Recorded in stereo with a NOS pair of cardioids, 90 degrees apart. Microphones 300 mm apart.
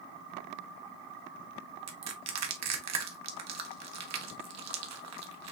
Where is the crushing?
65° right, 1.1 m.